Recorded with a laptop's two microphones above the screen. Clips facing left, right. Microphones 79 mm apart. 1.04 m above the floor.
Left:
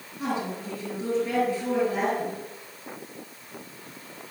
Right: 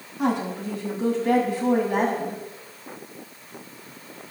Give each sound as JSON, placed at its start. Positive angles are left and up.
{"t": 0.2, "sound": "a woman speaking", "side_deg": -75, "distance_m": 7.0}